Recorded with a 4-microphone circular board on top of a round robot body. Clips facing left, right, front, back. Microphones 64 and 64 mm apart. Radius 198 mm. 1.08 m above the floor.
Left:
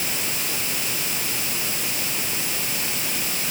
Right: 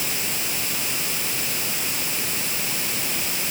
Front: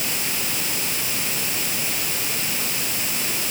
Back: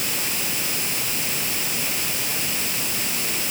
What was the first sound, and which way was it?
Only background noise.